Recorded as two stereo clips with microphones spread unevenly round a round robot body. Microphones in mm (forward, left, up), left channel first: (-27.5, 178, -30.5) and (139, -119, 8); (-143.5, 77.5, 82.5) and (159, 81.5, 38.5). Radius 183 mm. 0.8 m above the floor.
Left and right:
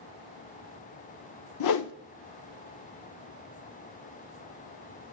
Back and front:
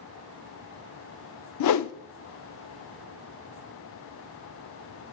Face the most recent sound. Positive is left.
turn(degrees=165)